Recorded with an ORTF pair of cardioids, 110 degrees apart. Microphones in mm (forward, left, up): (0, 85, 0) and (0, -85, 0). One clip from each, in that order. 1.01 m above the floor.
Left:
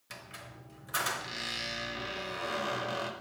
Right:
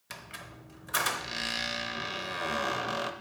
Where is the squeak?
25° right, 0.7 m.